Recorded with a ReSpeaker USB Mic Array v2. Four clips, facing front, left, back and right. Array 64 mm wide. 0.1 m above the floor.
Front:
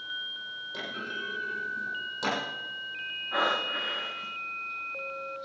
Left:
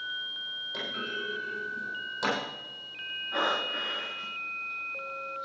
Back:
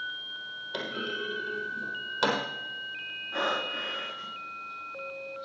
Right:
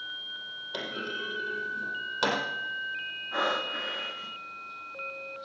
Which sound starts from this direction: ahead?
Breathing, at 3.3 s.